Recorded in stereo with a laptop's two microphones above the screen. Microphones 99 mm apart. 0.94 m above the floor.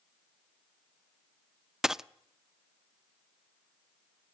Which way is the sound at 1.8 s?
5° right (ahead or behind).